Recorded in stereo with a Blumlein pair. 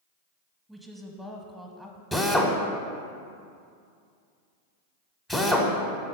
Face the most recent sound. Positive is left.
turn(degrees=5)